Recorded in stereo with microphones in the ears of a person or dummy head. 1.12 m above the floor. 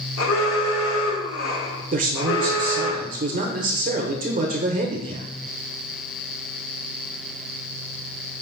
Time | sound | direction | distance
0.2 | an alarm | 75° left (ahead or behind) | 1.3 m
1.9 | a man speaking | 35° right (ahead or behind) | 0.6 m